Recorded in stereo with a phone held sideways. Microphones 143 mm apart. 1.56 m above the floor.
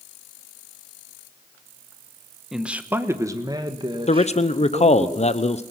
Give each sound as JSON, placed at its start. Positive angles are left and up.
{"t": 2.5, "sound": "a man speaking", "side_deg": -5, "distance_m": 1.3}
{"t": 4.1, "sound": "a man speaking", "side_deg": 50, "distance_m": 0.9}